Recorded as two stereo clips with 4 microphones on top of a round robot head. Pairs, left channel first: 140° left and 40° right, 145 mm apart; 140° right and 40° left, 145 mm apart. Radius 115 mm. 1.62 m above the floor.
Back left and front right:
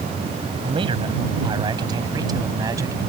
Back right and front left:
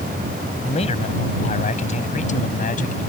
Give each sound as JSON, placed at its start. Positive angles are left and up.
{"t": 0.6, "sound": "a man speaking", "azimuth_deg": -95}